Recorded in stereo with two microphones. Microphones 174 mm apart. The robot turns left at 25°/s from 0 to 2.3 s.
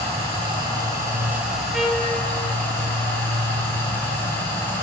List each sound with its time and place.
0.0 s running water: 135° right, 2.5 m; by 4.8 s 170° left, 2.5 m
1.7 s a trumpet: 5° right (ahead or behind), 0.9 m; by 2.1 s 10° right (ahead or behind), 0.9 m